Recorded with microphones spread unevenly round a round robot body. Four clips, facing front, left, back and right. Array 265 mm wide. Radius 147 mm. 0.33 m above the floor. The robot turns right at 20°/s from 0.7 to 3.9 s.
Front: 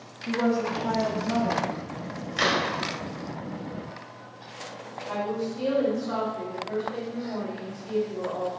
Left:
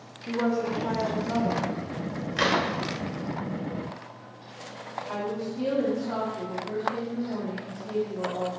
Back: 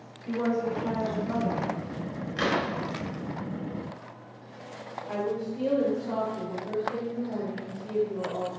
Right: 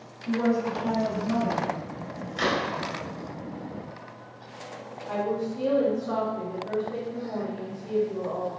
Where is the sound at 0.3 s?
55° left, 0.9 m; by 2.3 s 90° left, 0.9 m.